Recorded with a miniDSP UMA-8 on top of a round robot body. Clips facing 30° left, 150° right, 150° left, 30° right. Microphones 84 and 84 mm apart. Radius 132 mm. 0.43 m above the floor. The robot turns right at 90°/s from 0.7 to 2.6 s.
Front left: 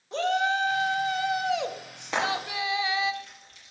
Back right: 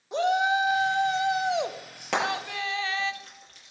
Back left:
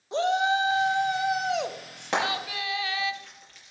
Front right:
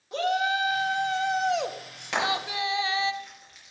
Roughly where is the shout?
Behind.